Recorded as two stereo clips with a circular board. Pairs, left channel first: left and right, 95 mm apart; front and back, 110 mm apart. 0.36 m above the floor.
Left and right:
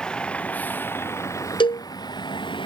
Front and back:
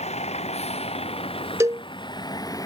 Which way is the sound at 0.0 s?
10° left.